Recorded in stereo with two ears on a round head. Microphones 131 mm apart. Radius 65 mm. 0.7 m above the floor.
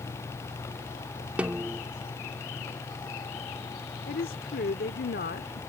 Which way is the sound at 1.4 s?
10° right (ahead or behind).